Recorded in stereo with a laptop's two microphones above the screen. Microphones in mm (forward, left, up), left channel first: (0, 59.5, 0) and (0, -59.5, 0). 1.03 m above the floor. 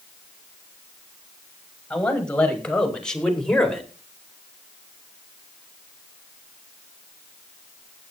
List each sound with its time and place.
1.9 s a man speaking: 10° left (ahead or behind), 7 m; by 3.9 s 5° left (ahead or behind), 4 m